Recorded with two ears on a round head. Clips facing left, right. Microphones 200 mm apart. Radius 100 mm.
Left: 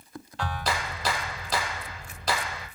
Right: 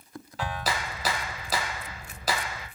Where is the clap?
5° right (ahead or behind), 0.8 m.